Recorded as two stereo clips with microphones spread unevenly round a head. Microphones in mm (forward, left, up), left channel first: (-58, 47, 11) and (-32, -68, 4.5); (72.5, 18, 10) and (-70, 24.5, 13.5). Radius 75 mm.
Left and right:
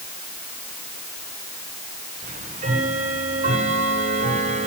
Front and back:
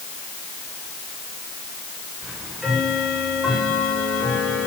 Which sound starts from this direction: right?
Ticking, at 2.2 s.